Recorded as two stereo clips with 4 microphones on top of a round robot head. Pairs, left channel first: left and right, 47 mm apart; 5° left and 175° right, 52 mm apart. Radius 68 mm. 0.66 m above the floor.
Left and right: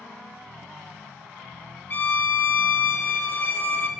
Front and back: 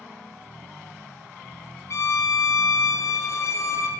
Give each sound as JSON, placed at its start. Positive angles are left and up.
{"t": 1.9, "sound": "a violin", "azimuth_deg": 40, "distance_m": 0.5}